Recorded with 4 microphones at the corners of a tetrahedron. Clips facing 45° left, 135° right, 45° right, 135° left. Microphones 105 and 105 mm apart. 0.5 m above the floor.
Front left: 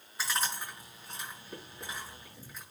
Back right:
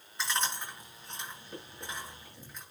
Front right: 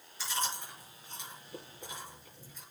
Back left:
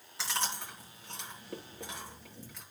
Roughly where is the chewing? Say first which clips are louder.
Back right 1 dB, even; behind left.